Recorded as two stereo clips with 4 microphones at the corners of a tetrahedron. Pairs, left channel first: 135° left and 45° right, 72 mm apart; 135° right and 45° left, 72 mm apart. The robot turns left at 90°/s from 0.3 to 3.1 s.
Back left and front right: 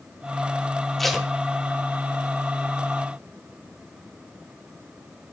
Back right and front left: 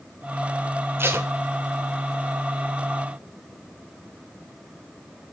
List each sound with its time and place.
1.0 s tape being pulled: 50° left, 1.1 m; by 1.3 s 25° left, 1.1 m